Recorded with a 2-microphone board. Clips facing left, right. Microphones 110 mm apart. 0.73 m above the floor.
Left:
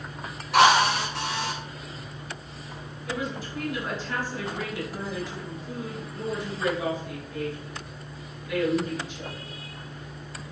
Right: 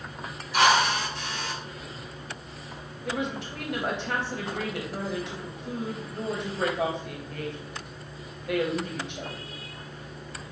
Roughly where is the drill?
Left.